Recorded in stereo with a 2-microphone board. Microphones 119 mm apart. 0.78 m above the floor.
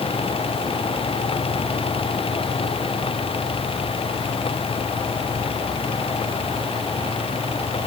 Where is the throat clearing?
No throat clearing in this recording.